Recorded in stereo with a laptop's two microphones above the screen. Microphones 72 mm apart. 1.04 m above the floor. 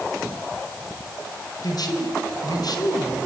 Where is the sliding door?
No sliding door in this recording.